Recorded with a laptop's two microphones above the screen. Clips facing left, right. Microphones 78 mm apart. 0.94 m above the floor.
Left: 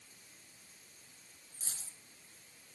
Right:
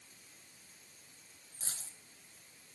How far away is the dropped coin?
About 1.6 m.